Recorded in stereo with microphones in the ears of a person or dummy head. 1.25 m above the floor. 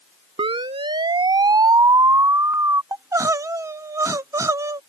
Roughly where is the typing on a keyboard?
I don't hear typing on a keyboard.